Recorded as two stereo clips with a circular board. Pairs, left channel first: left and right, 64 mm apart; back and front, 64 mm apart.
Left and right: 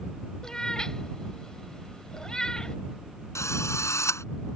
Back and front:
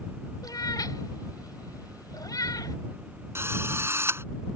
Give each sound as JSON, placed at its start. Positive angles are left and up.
{"t": 0.4, "sound": "a cat meowing", "azimuth_deg": 170}
{"t": 3.4, "sound": "a drill", "azimuth_deg": 50}